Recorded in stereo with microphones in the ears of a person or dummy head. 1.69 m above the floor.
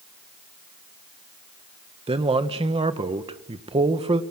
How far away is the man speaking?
About 1.7 m.